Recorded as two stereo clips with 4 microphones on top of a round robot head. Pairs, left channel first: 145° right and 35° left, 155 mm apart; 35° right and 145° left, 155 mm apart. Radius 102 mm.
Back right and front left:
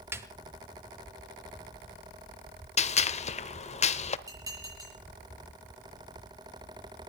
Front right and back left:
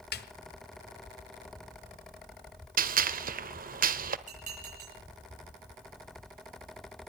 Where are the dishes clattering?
105° left, 7.5 m.